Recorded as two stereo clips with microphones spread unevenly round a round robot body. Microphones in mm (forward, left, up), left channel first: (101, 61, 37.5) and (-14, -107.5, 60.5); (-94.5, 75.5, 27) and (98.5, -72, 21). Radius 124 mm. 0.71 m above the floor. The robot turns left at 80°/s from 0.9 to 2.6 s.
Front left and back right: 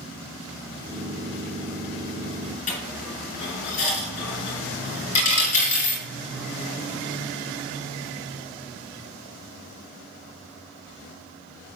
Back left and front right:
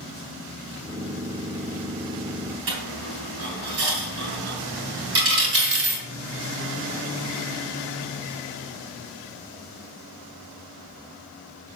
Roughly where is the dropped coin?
Ahead.